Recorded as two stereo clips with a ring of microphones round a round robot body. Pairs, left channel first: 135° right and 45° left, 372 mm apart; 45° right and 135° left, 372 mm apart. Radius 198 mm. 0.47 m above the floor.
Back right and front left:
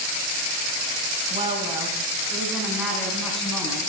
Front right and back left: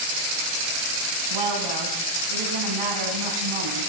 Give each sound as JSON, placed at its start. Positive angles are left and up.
{"t": 1.3, "sound": "a woman speaking", "azimuth_deg": 120, "distance_m": 4.0}